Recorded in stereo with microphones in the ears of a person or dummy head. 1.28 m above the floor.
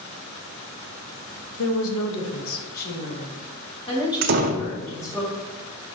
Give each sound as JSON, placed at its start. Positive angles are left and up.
{"t": 1.6, "sound": "a woman speaking", "side_deg": 80, "distance_m": 1.2}
{"t": 4.2, "sound": "a door slam", "side_deg": -50, "distance_m": 0.6}